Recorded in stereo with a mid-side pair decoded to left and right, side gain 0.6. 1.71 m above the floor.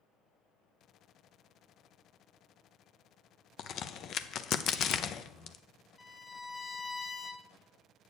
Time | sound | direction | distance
3.6 | a crack | 50° left | 0.6 m
6.0 | a violin | 25° left | 1.7 m